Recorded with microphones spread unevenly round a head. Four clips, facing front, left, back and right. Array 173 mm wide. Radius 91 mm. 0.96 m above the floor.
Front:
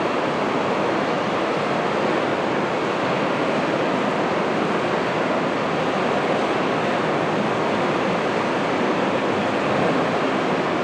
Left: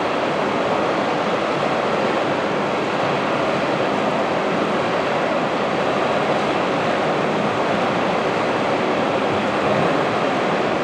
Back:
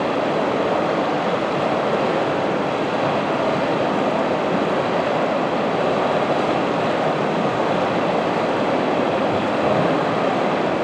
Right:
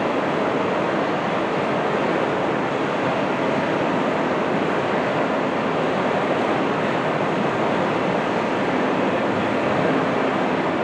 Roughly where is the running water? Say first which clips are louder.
Left 1 dB, back 2 dB; behind.